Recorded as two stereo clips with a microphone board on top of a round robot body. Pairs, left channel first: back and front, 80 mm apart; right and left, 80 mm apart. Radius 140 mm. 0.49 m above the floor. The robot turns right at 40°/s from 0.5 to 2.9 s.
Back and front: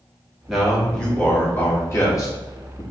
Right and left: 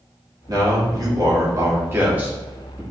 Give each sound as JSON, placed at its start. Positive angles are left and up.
{"t": 0.5, "sound": "a man speaking", "azimuth_deg": 85, "distance_m": 1.6}